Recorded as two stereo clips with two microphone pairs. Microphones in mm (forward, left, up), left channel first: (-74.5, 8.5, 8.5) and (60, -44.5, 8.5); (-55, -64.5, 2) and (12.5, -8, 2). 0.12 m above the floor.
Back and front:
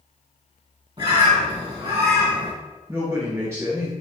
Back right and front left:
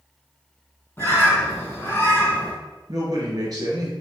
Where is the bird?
85° right, 1.2 m.